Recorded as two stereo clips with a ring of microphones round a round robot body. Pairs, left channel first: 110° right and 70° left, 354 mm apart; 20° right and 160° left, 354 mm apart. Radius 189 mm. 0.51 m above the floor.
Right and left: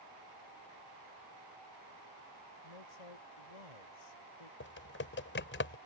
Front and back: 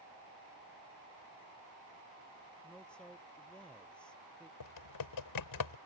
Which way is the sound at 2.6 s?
110° right.